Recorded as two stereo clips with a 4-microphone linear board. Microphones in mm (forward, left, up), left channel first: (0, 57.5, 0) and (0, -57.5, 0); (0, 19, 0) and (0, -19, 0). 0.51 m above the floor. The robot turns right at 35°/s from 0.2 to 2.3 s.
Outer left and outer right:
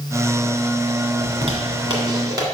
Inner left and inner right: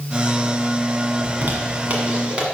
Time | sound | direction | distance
1.2 | a zipper | 70° right (ahead or behind) | 1.7 m